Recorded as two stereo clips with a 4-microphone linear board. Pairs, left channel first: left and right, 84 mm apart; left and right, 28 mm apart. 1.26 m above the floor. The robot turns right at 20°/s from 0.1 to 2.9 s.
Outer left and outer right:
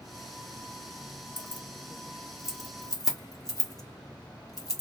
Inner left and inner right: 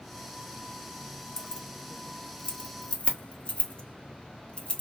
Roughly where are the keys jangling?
Centre.